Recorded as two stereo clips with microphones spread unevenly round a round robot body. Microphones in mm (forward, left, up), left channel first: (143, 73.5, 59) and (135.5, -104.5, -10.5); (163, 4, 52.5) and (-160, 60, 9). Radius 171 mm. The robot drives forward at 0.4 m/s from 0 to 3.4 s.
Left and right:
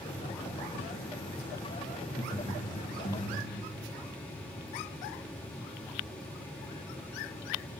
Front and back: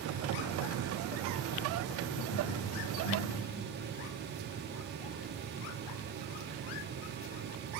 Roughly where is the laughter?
Ahead.